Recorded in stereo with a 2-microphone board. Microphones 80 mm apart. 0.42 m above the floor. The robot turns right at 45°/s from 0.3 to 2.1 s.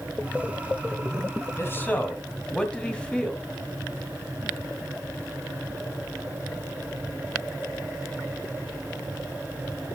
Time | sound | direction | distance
1.6 | a man speaking | 35° left (ahead or behind) | 2.5 m